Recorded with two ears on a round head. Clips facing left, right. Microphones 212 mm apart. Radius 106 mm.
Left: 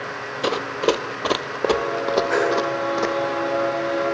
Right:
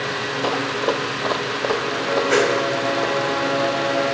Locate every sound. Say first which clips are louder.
0.4 s running footsteps: left 2 dB; 25° left (ahead or behind), 1.8 m; by 3.2 s 35° left (ahead or behind), 3 m
2.3 s a whoosh: right 6 dB; 45° right (ahead or behind), 2.5 m